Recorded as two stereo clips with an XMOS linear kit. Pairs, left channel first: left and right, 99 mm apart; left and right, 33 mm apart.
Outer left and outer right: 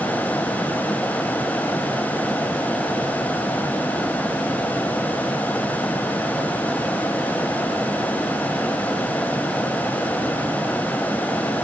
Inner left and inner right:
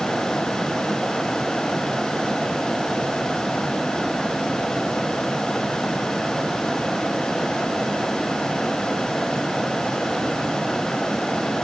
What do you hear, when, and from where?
Only background noise.